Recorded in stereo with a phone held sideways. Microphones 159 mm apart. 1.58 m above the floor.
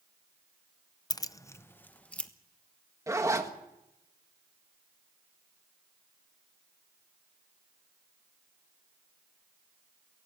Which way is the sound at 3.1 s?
20° right (ahead or behind).